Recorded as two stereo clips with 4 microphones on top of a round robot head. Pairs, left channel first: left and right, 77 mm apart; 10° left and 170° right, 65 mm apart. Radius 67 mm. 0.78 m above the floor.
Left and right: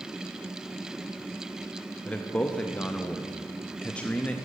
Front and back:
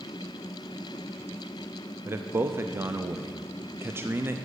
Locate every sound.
2.0 s a man speaking: 155° left, 0.6 m